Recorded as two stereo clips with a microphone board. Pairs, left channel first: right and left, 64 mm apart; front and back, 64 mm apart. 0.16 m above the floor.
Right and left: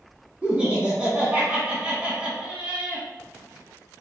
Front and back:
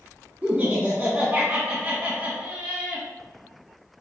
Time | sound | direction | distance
0.4 | laughter | 140° left | 1.7 m